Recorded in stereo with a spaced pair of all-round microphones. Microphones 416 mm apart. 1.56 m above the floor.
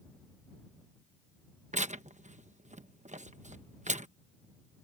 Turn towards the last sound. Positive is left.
turn(degrees=-15)  # may be behind; listen again after turning